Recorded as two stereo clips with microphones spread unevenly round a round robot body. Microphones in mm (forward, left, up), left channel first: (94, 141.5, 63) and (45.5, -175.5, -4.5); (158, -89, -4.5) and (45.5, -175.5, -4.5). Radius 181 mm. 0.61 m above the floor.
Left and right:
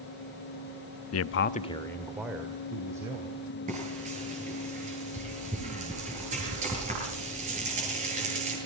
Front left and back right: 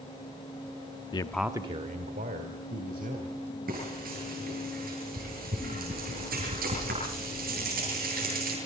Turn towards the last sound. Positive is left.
turn(degrees=-170)